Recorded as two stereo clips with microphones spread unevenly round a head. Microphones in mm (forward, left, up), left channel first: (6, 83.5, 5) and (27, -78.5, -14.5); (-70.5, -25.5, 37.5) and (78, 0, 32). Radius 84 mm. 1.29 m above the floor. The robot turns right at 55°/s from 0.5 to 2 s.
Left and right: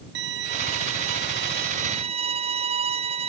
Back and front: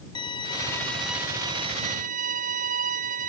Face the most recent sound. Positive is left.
turn(degrees=-25)